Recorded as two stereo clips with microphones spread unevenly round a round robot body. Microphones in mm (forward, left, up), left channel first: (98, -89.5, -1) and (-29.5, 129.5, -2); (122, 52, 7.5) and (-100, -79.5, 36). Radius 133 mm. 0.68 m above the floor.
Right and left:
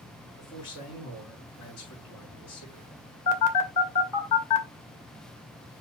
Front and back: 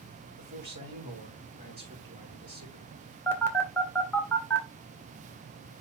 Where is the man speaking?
95° right, 5.5 m.